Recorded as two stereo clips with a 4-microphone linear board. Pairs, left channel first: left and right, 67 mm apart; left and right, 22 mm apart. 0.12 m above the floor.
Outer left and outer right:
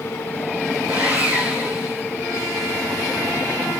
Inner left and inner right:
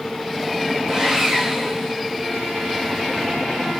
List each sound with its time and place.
0.9 s sawing: 25° right (ahead or behind), 0.9 m